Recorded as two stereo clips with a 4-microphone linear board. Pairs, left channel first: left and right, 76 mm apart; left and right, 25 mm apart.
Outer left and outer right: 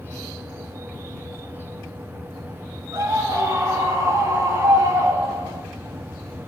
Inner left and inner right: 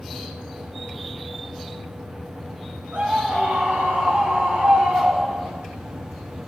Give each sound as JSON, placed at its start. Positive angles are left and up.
{"t": 2.9, "sound": "a scream", "side_deg": -50, "distance_m": 8.5}